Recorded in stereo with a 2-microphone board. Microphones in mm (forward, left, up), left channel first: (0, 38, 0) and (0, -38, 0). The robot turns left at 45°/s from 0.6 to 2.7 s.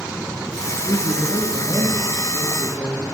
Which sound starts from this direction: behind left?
A man speaking, at 0.8 s.